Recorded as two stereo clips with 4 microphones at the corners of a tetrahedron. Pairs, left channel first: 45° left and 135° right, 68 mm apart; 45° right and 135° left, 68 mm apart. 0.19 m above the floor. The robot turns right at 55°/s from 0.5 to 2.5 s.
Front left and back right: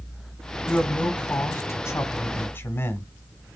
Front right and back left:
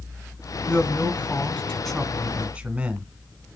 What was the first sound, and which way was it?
A man speaking, 25° right.